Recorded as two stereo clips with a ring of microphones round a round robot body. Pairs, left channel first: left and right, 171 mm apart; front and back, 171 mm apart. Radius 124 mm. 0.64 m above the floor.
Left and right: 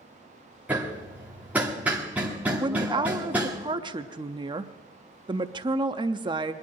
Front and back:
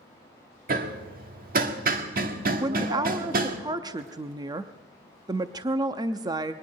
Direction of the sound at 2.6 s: 130° right.